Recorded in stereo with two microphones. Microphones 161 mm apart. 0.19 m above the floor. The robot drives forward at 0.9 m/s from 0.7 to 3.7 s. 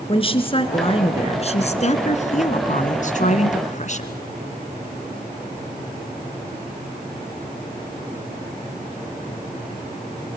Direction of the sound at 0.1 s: 35° left (ahead or behind).